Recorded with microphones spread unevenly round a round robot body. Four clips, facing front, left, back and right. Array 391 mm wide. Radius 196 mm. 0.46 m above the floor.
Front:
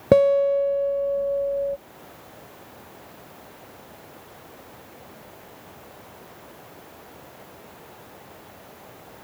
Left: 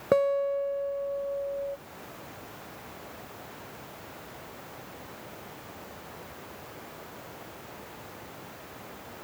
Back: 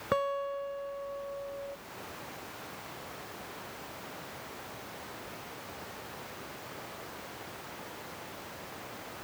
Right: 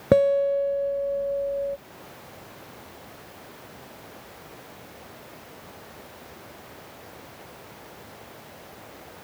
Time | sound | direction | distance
0.1 | a guitar | 40° right | ?